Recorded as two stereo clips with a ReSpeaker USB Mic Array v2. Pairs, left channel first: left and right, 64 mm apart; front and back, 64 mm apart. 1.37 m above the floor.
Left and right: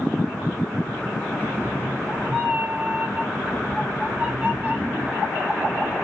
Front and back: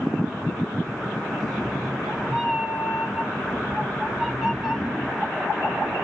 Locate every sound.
1.4 s a cat meowing: 105° right, 0.8 m